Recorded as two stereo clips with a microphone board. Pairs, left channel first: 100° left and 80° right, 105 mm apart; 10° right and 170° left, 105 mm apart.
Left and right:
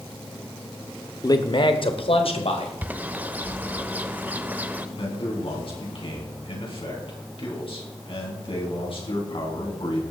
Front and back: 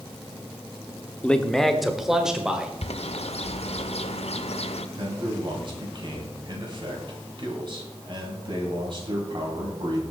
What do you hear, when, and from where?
1.2 s a man speaking: 65° left, 1.0 m; by 2.7 s 90° left, 2 m
2.8 s a bird: 5° right, 0.8 m
5.0 s a man speaking: 130° left, 4 m